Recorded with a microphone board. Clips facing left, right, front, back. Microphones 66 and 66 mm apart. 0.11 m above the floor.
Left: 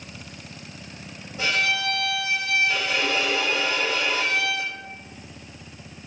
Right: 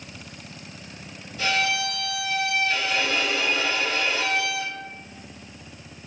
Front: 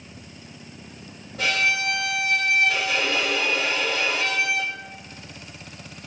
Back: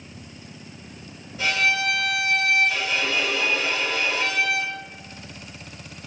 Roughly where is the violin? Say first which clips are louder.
Even, back 1 dB; ahead left.